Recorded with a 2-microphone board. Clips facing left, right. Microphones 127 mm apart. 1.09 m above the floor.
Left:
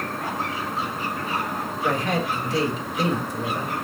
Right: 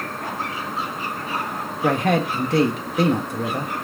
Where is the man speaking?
60° right (ahead or behind), 1.6 m.